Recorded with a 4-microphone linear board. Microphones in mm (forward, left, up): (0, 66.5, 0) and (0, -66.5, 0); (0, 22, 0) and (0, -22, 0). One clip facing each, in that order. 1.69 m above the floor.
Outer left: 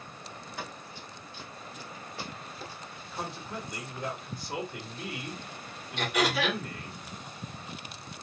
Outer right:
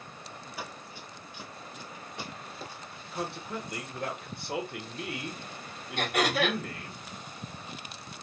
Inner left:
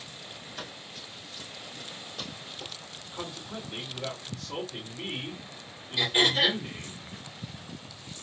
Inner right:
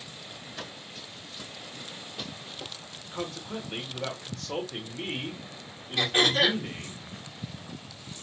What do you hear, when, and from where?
0.6 s running footsteps: 5° right (ahead or behind), 1.7 m; by 3.0 s 30° right (ahead or behind), 1.9 m
3.1 s a man speaking: 65° right (ahead or behind), 1.3 m
6.0 s throat clearing: 55° right (ahead or behind), 2 m